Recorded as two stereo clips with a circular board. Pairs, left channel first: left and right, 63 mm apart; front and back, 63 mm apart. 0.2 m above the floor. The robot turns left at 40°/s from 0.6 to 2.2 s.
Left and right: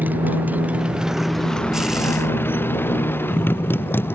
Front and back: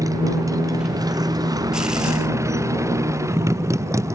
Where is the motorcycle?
150° right; by 4.2 s 145° left.